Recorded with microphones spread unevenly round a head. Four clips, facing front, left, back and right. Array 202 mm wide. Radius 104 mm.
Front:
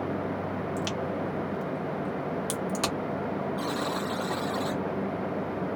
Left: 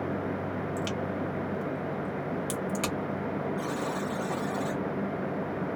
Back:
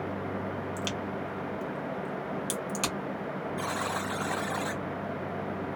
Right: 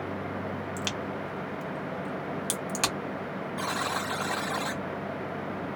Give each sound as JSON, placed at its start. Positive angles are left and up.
{"t": 0.8, "sound": "a crack", "azimuth_deg": -80, "distance_m": 1.5}
{"t": 3.6, "sound": "a buzzer", "azimuth_deg": -165, "distance_m": 0.6}